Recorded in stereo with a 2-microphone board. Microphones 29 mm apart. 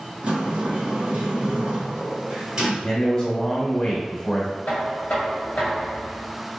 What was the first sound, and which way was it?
A sliding door, 30° right (ahead or behind).